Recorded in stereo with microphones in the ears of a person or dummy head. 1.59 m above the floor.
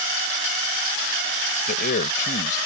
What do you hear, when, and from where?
1.7 s a man speaking: 55° left (ahead or behind)